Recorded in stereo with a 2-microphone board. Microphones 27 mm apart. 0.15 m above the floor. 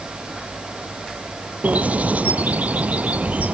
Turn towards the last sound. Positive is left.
turn(degrees=-65)  # may be behind; listen again after turning